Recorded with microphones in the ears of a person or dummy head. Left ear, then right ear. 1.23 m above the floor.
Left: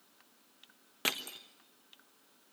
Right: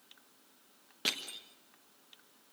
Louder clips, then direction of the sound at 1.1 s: Even; 35° left (ahead or behind).